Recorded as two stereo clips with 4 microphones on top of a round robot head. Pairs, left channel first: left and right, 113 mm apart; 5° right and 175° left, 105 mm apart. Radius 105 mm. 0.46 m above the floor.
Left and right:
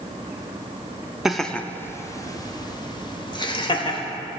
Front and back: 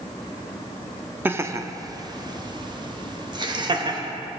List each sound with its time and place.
1.2 s laughter: 170° right, 0.7 m; by 4.1 s 130° left, 1.9 m